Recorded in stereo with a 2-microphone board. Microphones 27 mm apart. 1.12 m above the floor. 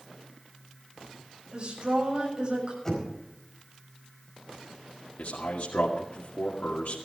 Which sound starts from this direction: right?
A woman speaking, at 1.5 s.